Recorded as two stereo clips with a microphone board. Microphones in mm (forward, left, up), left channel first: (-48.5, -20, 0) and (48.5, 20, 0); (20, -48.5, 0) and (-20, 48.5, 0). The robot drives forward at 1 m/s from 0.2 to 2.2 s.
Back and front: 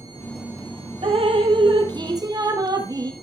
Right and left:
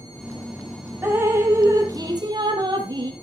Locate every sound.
1.0 s dripping: 45° left, 2.5 m; by 3.1 s 70° left, 1.9 m